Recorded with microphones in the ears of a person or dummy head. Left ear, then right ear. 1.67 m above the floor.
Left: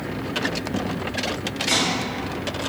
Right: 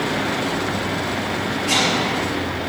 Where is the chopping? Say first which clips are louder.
Right 3 dB; 20° left (ahead or behind), 1.2 m.